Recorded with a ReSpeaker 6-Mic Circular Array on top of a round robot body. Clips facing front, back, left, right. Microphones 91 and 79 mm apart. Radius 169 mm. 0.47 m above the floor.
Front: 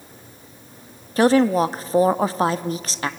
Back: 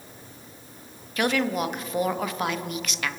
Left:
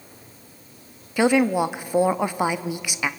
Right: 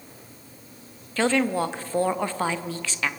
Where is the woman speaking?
20° left, 1.0 m.